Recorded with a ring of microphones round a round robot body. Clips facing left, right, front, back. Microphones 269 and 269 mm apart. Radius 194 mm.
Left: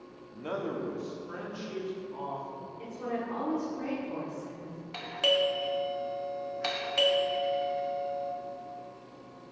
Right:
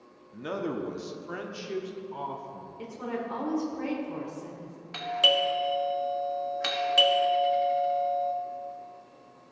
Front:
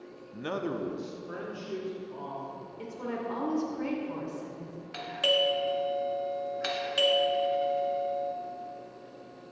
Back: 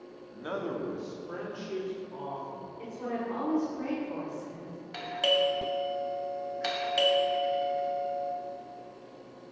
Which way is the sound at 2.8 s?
45° right.